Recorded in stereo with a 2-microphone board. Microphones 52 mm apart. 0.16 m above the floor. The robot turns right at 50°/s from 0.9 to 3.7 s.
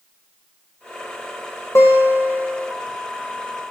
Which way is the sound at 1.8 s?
110° left.